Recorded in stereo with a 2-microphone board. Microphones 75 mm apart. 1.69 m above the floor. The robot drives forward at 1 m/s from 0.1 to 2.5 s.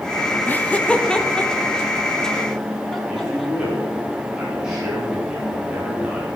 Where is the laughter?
25° left (ahead or behind), 0.7 m; by 3.5 s 5° left (ahead or behind), 2.5 m.